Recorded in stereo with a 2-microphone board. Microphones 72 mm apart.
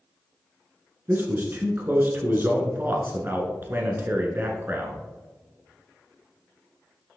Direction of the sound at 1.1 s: 30° right (ahead or behind).